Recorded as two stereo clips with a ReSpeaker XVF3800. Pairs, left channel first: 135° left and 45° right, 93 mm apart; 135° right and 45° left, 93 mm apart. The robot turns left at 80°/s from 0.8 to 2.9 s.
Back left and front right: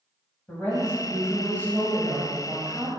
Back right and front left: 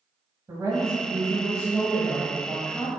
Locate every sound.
0.5 s a woman speaking: 80° left, 1.7 m; by 2.9 s 90° right, 1.7 m